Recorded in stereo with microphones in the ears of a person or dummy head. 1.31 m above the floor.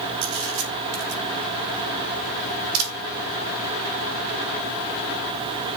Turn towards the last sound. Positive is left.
turn(degrees=-85)